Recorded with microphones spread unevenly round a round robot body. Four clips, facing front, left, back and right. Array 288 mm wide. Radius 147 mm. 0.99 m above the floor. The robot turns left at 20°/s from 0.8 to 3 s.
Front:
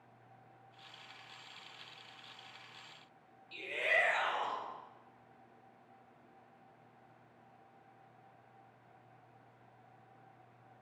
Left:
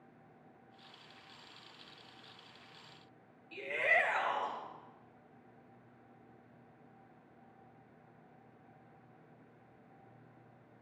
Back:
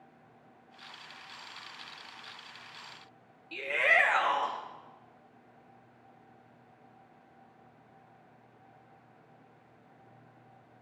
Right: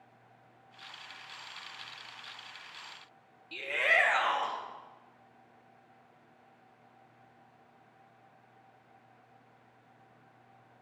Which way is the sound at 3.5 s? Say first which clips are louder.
Right 3 dB, back 7 dB; 145° right.